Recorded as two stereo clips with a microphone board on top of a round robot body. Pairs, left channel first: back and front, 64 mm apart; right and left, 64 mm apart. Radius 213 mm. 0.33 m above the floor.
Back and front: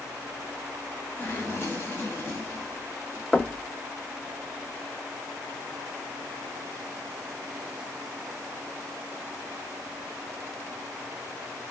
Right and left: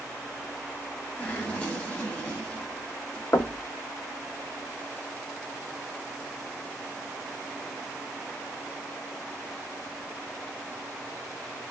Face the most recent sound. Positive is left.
turn(degrees=-105)